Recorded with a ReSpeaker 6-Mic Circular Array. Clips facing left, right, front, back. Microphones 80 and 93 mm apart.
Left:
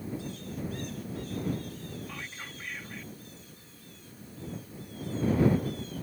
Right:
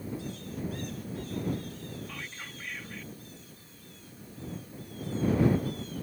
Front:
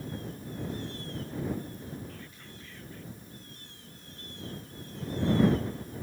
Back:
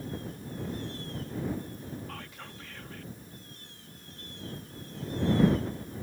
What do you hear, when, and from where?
2.1 s whispering: 170° left